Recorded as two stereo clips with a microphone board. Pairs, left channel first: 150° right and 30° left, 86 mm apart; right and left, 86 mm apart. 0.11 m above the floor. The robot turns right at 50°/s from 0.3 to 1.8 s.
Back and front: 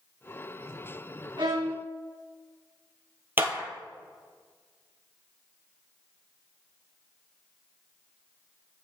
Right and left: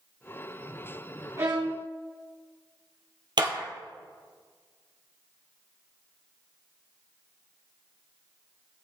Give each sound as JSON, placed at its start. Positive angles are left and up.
{"t": 1.4, "sound": "a violin", "azimuth_deg": 50, "distance_m": 3.0}
{"t": 3.4, "sound": "a clap", "azimuth_deg": 90, "distance_m": 1.8}